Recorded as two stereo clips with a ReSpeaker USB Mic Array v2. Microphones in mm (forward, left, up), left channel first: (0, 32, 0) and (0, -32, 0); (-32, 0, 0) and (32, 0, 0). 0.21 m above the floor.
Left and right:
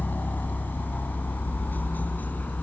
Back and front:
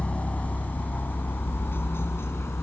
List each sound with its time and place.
0.0 s a helicopter: 125° left; by 2.6 s 145° left